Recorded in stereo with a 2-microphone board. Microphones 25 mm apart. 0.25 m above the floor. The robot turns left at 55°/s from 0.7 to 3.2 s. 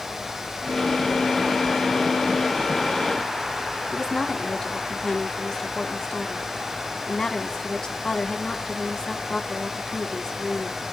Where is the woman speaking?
30° left (ahead or behind), 1.5 m.